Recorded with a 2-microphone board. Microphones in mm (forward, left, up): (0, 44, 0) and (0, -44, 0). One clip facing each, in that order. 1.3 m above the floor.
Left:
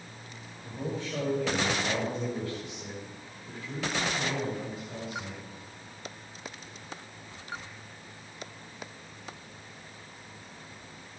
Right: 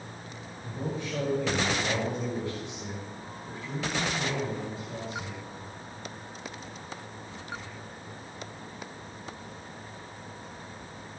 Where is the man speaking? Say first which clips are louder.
Right 1 dB; 15° right (ahead or behind), 6.5 m; by 5.4 s 35° right (ahead or behind), 6.5 m.